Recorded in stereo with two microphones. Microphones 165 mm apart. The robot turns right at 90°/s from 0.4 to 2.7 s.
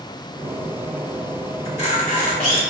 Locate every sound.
1.6 s a camera shutter: 50° left, 1.5 m; by 2.6 s 135° left, 1.5 m